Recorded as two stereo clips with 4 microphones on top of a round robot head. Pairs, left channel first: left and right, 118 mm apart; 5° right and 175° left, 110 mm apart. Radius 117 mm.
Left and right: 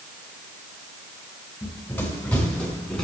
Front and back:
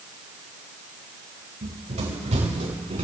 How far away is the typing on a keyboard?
No typing on a keyboard in this recording.